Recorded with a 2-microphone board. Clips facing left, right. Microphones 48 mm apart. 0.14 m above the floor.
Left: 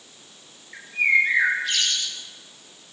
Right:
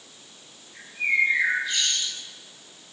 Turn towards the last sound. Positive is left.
turn(degrees=70)  # may be behind; listen again after turning